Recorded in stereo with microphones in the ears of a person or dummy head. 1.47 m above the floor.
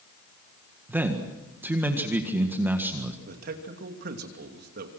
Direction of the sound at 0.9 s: 10° right (ahead or behind).